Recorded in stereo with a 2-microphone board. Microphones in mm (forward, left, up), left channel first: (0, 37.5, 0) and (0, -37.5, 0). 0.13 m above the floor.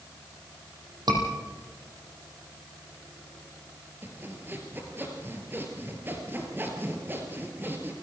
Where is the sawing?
25° right (ahead or behind), 3 m.